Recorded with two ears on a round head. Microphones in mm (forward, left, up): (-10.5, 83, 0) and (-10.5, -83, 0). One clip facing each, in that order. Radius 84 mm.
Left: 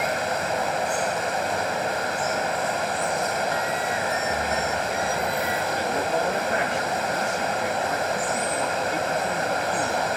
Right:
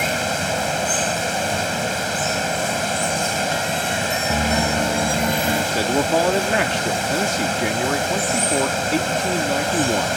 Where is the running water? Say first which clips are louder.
Right 2 dB; 40° right (ahead or behind).